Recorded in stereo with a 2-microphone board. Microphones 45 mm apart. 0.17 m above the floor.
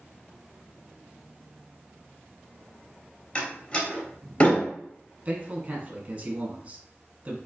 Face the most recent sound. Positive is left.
turn(degrees=-35)  # may be behind; listen again after turning